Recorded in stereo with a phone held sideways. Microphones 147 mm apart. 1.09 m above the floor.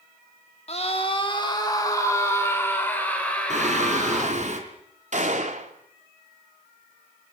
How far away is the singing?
About 3.5 m.